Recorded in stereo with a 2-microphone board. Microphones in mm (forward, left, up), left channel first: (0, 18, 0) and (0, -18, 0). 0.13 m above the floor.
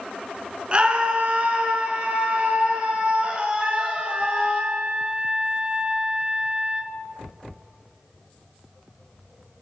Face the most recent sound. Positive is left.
turn(degrees=-30)  # may be behind; listen again after turning